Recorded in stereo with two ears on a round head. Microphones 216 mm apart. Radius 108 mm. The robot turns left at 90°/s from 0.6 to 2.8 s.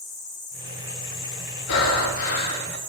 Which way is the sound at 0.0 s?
150° left.